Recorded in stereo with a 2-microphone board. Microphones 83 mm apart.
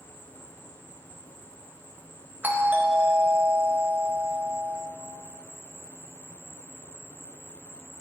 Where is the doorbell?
25° right (ahead or behind), 0.9 m.